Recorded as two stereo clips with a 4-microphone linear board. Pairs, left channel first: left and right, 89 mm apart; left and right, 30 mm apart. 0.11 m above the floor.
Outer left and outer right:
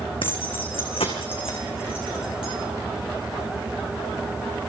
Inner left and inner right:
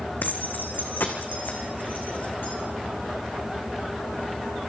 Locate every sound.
0.2 s keys jangling: 70° left (ahead or behind), 4.5 m; by 2.5 s 80° left, 6 m